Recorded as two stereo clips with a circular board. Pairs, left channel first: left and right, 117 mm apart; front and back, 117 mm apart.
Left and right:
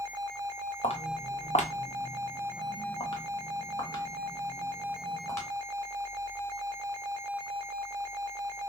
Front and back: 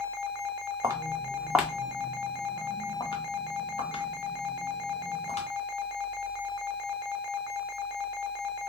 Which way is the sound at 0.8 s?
120° left.